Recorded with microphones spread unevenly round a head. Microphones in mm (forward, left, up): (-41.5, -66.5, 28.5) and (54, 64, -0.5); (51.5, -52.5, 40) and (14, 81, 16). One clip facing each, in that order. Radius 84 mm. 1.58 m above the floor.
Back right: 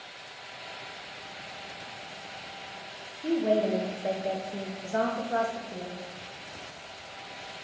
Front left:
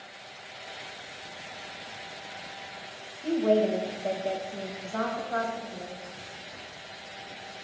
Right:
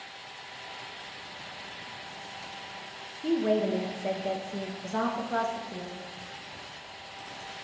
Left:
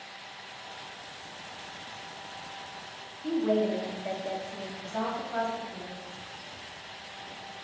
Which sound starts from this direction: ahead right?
A woman speaking, at 3.2 s.